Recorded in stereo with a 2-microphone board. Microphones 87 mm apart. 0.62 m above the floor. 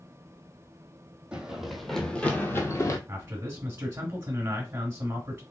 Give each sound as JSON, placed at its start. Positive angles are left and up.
{"t": 1.3, "sound": "running footsteps", "side_deg": -10, "distance_m": 0.9}
{"t": 3.1, "sound": "a man speaking", "side_deg": -25, "distance_m": 1.4}